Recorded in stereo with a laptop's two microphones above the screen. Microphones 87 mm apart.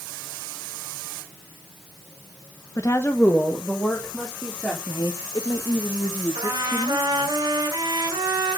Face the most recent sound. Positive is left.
turn(degrees=-50)  # may be behind; listen again after turning